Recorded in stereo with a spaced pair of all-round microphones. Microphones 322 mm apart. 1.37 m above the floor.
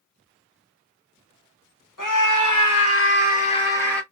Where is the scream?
75° left (ahead or behind), 1.2 m; by 4.0 s centre (ahead or behind), 1.1 m.